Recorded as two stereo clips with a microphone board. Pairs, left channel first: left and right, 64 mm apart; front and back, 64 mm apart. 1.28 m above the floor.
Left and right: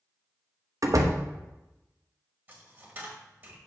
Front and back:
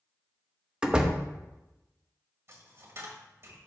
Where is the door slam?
105° right, 0.8 m.